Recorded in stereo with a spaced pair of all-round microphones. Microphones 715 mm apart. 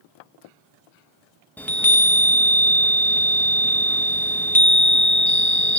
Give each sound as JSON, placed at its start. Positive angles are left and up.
{"t": 1.6, "sound": "a chime", "side_deg": 5, "distance_m": 0.7}